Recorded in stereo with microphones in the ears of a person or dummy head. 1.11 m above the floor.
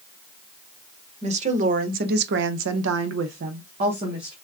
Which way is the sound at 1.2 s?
35° right (ahead or behind).